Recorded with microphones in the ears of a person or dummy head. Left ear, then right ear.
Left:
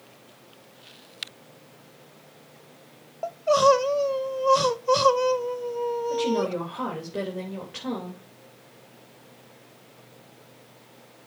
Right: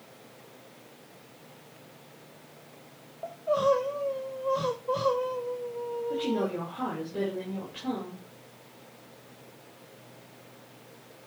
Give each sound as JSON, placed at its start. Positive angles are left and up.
{"t": 3.2, "sound": "crying", "side_deg": 70, "distance_m": 0.9}
{"t": 6.1, "sound": "a woman speaking", "side_deg": 40, "distance_m": 3.0}